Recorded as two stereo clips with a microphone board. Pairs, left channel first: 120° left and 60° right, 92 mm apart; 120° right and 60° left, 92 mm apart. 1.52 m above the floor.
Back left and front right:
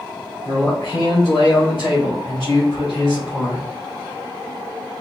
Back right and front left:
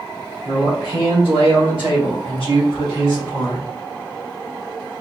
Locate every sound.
0.5 s a man speaking: 65° left, 1.8 m; by 3.7 s 100° left, 3 m